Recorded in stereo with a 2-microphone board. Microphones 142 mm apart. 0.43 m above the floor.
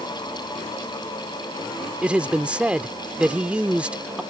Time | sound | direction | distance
2.0 | a man speaking | 10° right (ahead or behind) | ?